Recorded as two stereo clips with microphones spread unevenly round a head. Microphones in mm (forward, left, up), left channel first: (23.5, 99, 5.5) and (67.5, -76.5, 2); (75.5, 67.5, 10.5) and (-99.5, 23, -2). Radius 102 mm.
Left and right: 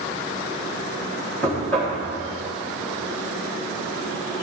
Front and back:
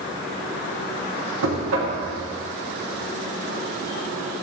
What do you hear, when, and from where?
1.4 s knocking: 175° right, 1.4 m